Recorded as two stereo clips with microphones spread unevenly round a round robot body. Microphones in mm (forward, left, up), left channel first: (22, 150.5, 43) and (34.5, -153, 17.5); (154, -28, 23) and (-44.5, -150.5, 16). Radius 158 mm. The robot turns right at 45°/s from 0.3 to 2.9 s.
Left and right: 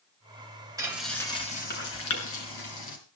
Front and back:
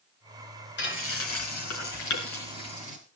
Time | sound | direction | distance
0.8 | frying | 10° right | 5 m